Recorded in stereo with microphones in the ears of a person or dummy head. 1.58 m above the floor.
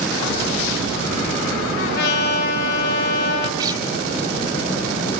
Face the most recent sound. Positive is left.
turn(degrees=-25)  # may be behind; listen again after turning